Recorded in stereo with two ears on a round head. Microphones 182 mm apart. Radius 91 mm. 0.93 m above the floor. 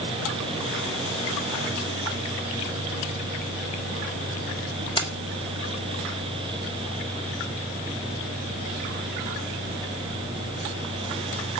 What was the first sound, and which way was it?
Keys jangling, 25° left (ahead or behind).